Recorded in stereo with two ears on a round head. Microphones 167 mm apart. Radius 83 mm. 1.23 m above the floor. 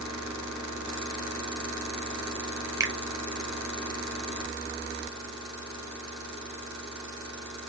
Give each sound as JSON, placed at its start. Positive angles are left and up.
{"t": 2.8, "sound": "a finger snap", "side_deg": -15, "distance_m": 0.5}